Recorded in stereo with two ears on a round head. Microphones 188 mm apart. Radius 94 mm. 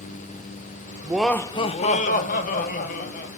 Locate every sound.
1.0 s laughter: 10° right (ahead or behind), 0.8 m; by 3.3 s 45° left (ahead or behind), 2.5 m